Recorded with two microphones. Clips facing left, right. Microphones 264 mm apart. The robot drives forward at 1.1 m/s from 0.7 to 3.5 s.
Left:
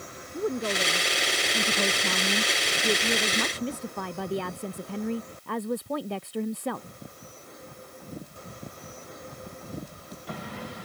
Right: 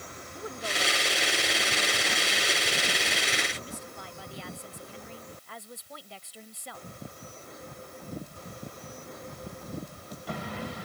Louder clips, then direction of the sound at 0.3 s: Left 9 dB; 50° left (ahead or behind).